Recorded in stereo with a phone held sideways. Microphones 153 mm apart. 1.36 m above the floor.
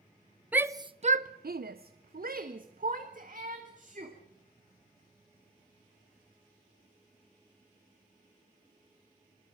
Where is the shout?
10° right (ahead or behind), 0.7 m; by 4.2 s 55° right (ahead or behind), 2.5 m.